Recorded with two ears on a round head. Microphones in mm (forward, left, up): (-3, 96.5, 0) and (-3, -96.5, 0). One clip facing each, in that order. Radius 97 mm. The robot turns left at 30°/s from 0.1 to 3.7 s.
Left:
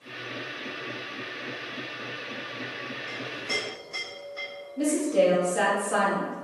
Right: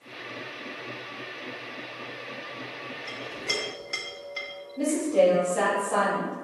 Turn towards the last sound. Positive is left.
turn(degrees=10)  # may be behind; listen again after turning